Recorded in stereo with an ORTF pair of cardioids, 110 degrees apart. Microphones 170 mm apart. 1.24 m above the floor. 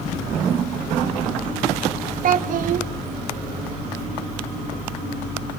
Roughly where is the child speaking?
Ahead right.